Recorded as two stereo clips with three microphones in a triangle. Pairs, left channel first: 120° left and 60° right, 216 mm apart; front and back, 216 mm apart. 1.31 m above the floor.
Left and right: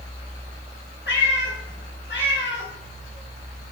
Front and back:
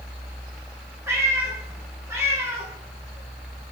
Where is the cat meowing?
105° left, 2.5 m.